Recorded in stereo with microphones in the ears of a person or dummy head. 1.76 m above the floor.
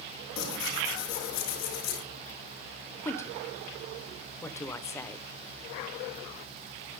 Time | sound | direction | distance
0.4 | tearing paper | 85° left | 7.5 m
3.0 | a woman speaking | 15° left (ahead or behind) | 1.2 m